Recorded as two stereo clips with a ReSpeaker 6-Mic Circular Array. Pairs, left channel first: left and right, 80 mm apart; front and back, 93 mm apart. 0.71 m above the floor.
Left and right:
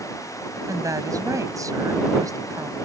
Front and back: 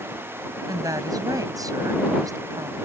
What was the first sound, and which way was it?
A woman speaking, 130° right.